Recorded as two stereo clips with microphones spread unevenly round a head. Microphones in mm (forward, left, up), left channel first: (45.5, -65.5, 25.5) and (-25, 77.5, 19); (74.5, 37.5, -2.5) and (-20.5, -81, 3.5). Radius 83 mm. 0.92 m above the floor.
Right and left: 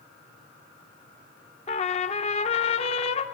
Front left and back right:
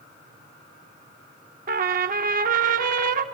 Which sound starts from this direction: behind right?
A trumpet, at 1.7 s.